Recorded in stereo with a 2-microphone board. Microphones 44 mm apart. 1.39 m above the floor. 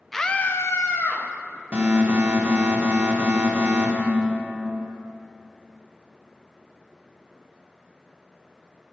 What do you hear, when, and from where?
0.1 s a scream: 5° left (ahead or behind), 0.6 m; by 1.3 s 75° left (ahead or behind), 1.1 m
1.7 s an alarm: 30° right (ahead or behind), 1.3 m